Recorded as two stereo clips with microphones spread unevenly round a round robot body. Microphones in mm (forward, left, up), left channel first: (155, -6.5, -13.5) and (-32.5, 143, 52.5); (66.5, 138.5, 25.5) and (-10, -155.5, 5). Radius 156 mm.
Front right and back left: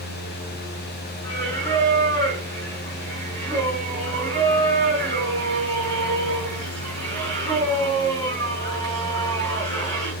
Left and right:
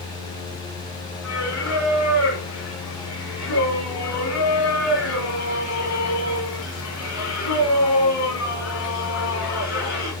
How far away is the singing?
About 5 m.